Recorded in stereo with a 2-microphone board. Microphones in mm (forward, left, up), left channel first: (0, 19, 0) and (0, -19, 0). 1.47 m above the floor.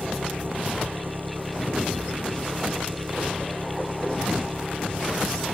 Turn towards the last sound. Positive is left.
turn(degrees=-65)  # may be behind; listen again after turning